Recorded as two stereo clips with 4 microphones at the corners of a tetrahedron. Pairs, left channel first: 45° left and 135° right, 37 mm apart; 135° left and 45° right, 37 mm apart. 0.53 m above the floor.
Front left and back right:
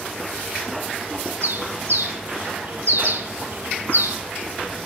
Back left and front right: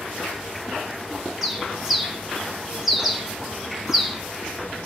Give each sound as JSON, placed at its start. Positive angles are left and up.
{"t": 1.4, "sound": "a bird", "azimuth_deg": -130, "distance_m": 1.4}